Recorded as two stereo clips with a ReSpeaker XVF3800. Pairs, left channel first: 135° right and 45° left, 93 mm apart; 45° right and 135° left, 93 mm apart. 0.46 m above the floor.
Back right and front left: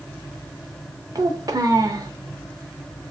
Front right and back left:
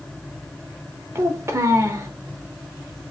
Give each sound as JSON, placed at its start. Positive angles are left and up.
{"t": 1.1, "sound": "a child speaking", "azimuth_deg": 85, "distance_m": 0.5}